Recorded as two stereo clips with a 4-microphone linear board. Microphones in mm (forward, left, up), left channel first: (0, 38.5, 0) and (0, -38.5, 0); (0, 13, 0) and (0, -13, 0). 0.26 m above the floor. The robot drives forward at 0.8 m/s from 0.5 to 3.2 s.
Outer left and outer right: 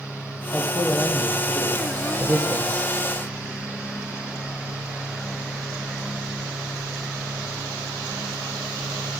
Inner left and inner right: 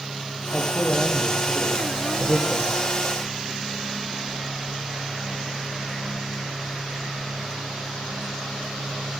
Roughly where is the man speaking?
Right.